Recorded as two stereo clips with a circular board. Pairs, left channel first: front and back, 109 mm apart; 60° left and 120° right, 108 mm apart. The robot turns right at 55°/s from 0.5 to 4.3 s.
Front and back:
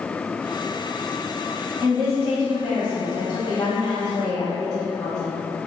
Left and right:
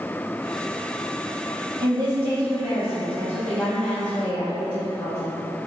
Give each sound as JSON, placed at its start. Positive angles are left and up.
{"t": 1.8, "sound": "a woman speaking", "azimuth_deg": -105, "distance_m": 0.9}